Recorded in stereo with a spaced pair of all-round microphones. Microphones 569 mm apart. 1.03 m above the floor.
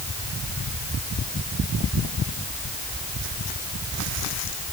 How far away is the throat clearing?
I don't hear throat clearing.